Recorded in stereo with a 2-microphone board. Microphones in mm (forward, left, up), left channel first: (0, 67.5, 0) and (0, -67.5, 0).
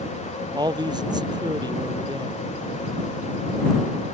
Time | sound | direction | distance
0.5 | a man speaking | 30° right (ahead or behind) | ?